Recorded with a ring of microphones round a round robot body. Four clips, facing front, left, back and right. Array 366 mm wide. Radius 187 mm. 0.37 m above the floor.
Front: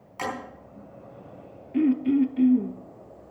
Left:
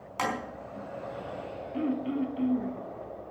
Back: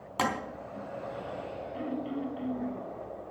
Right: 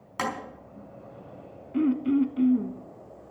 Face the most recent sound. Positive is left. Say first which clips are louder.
# right 7 dB, front 15 dB
turn(degrees=-30)